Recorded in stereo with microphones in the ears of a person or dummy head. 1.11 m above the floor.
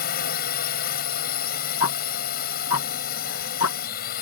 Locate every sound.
0.0 s a drone: 50° left (ahead or behind)
1.8 s ticking: 75° left (ahead or behind)